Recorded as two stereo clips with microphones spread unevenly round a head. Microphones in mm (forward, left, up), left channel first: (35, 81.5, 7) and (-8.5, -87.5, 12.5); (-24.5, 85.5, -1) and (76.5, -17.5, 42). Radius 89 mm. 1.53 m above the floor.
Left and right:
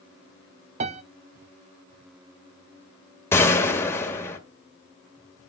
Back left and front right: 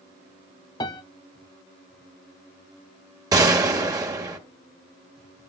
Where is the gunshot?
Straight ahead, 1.9 m.